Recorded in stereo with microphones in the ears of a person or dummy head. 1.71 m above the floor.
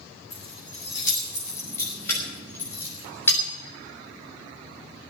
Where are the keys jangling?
15° left (ahead or behind), 7.5 m; by 3.4 s 10° left (ahead or behind), 4.5 m.